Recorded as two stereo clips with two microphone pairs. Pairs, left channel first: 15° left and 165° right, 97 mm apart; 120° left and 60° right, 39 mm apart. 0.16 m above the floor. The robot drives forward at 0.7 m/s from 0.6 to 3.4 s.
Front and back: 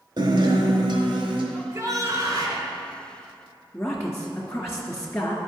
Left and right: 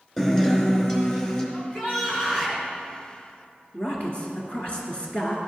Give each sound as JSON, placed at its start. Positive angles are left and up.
{"t": 0.2, "sound": "a guitar", "azimuth_deg": -165, "distance_m": 1.0}
{"t": 1.5, "sound": "a shout", "azimuth_deg": 160, "distance_m": 1.5}
{"t": 3.7, "sound": "a woman speaking", "azimuth_deg": 85, "distance_m": 1.8}